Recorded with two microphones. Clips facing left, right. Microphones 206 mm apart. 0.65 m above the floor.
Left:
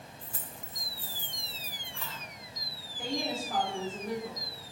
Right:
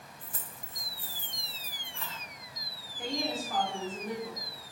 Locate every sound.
0.2 s keys jangling: 55° right (ahead or behind), 0.5 m; by 2.2 s 5° left (ahead or behind), 1.7 m
3.0 s a woman speaking: 10° left (ahead or behind), 1.6 m